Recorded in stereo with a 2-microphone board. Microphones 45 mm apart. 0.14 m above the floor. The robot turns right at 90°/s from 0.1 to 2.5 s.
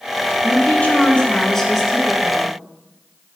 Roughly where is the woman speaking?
Ahead left.